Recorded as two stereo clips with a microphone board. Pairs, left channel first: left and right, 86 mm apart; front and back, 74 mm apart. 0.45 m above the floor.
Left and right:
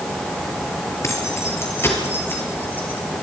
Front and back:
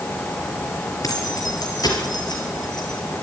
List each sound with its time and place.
1.0 s keys jangling: 35° left, 5.5 m; by 3.0 s 20° left, 6 m